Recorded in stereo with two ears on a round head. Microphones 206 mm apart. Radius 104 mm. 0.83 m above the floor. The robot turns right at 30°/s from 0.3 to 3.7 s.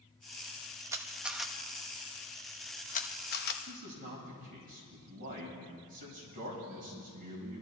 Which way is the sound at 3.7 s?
35° right (ahead or behind).